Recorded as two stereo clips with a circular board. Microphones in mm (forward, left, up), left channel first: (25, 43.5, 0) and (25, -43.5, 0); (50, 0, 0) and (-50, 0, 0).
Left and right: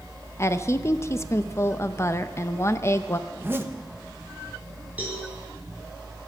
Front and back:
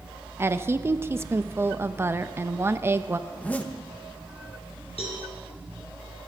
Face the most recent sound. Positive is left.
turn(degrees=-20)